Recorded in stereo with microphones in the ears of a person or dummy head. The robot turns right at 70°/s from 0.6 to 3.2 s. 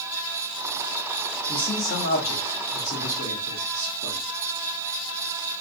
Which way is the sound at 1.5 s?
10° left.